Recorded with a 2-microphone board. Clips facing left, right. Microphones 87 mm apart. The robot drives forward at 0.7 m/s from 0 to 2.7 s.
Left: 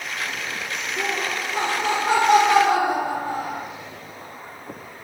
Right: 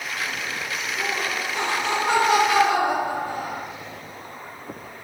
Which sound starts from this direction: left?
Laughter, at 1.0 s.